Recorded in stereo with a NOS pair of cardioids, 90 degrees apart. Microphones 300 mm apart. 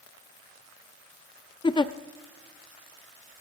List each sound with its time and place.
1.6 s a giggle: 15° left, 0.7 m